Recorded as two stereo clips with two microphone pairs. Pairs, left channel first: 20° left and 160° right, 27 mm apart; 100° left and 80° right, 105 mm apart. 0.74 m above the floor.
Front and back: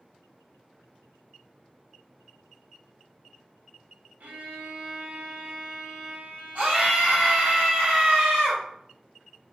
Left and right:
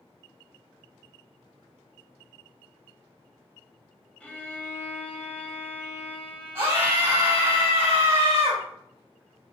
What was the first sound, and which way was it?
A violin, straight behind.